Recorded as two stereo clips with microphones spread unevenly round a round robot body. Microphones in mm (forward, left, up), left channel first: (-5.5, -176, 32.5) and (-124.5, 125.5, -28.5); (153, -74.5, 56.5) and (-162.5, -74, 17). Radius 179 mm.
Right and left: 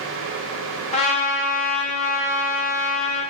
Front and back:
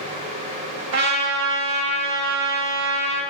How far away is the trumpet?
About 1.0 m.